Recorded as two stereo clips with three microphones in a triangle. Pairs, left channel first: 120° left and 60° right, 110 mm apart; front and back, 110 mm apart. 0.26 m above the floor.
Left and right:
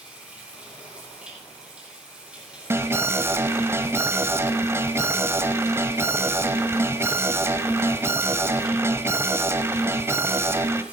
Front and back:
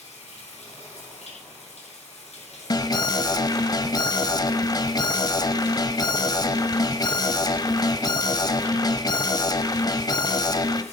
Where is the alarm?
10° right, 0.9 m.